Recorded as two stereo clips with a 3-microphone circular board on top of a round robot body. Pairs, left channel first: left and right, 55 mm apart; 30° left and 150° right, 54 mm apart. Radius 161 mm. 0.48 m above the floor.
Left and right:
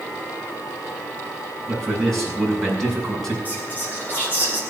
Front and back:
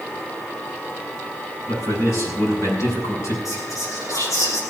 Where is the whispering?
35° left, 8 m.